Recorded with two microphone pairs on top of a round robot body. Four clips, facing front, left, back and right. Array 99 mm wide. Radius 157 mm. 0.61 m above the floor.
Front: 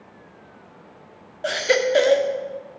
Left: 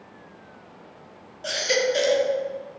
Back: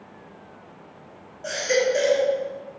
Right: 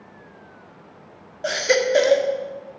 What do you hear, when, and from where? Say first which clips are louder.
1.4 s a baby crying: right 4 dB, front 2 dB; 40° right, 1.2 m